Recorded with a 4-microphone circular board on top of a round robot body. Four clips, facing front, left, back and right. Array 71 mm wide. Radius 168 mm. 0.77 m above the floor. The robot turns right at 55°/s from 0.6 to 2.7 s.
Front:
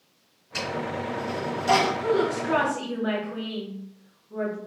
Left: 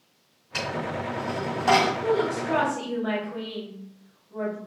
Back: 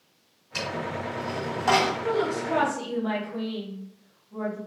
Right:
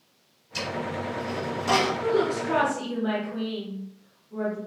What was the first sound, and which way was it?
A dropped coin, 85° left.